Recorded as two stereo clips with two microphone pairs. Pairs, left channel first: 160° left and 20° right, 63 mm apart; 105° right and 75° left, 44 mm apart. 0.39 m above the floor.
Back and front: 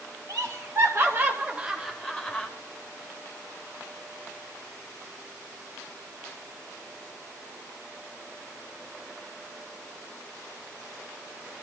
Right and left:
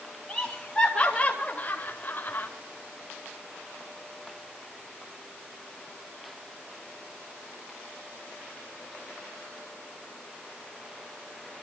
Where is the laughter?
25° right, 1.5 m; by 2.5 s 130° right, 1.3 m.